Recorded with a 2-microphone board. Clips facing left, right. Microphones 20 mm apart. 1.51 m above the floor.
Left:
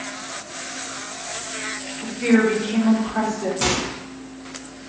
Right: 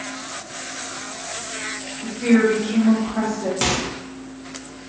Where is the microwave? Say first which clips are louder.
Even; 30° right (ahead or behind), 0.7 m.